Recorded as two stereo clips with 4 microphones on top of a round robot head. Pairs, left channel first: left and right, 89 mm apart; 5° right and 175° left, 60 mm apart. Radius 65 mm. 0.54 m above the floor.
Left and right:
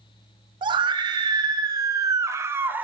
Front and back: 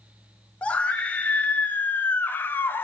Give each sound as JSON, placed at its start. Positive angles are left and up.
{"t": 0.6, "sound": "a scream", "azimuth_deg": -75, "distance_m": 2.5}